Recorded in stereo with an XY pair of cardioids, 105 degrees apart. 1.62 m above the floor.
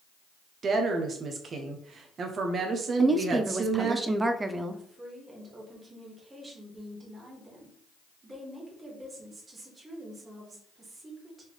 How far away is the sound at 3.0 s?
About 0.6 m.